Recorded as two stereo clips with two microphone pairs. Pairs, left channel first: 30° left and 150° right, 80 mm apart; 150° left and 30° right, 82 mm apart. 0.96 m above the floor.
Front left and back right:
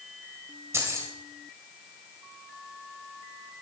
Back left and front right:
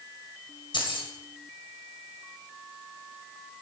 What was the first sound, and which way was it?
Keys jangling, 155° left.